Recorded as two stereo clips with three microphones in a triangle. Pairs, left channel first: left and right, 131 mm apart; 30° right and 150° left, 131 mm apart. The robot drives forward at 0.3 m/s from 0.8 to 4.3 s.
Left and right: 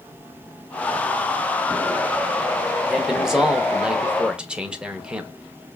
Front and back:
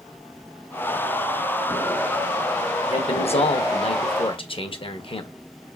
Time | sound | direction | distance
2.9 | a man speaking | 5° right | 0.9 m